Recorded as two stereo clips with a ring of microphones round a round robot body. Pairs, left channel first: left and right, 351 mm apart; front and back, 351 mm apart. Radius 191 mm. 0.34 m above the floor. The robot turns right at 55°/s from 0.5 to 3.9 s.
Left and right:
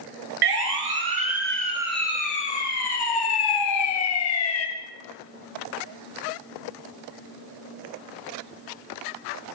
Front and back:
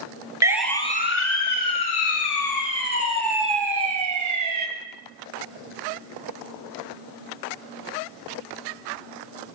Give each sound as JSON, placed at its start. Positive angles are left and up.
{"t": 0.4, "sound": "a siren", "azimuth_deg": -100, "distance_m": 4.5}